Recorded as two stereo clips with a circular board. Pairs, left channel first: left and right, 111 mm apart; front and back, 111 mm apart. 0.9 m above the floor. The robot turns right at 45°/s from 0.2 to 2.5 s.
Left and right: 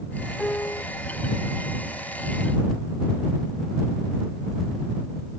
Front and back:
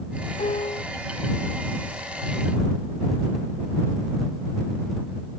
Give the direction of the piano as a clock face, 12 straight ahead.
12 o'clock.